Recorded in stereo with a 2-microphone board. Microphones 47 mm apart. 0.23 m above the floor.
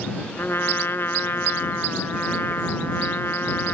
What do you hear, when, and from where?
0.4 s a trumpet: 55° left (ahead or behind)